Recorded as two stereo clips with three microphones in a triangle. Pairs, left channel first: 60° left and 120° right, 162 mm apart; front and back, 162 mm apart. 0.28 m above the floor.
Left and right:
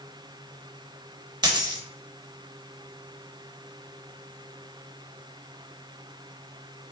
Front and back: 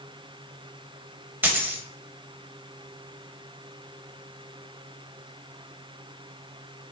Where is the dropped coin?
120° right, 0.6 m.